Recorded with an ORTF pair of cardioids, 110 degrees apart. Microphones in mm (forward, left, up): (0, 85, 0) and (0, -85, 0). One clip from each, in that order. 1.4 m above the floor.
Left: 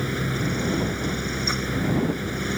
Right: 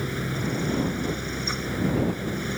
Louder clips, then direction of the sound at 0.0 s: Left 3 dB; 20° left.